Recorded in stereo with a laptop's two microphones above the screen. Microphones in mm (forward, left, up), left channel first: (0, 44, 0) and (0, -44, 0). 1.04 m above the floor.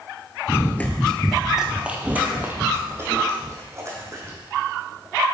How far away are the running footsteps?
About 1.1 m.